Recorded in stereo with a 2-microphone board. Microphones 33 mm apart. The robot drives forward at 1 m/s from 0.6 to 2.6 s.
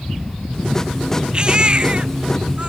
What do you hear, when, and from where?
1.3 s a baby crying: 30° right (ahead or behind); by 2.7 s 35° right (ahead or behind)